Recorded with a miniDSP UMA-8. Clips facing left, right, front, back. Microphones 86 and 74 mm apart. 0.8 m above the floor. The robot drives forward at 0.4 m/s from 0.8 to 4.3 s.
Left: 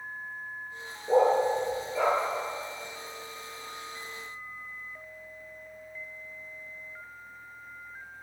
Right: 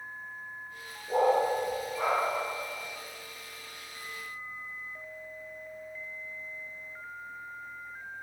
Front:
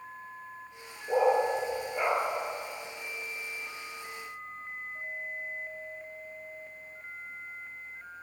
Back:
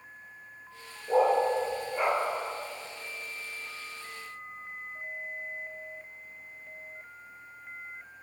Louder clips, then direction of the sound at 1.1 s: Left 3 dB, back 1 dB; 85° left.